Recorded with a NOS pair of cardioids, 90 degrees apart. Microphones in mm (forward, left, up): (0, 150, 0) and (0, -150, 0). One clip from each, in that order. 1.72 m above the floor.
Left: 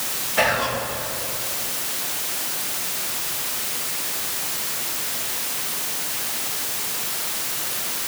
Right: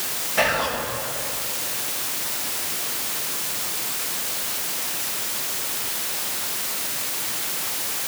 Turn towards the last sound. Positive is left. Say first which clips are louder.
# left 1 dB
turn(degrees=0)